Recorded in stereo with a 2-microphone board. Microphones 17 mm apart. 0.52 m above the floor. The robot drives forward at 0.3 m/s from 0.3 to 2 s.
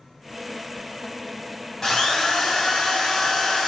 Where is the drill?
30° left (ahead or behind), 0.9 m.